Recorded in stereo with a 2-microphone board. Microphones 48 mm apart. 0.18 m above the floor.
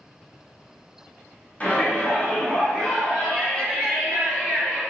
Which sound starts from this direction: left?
A shout, at 1.6 s.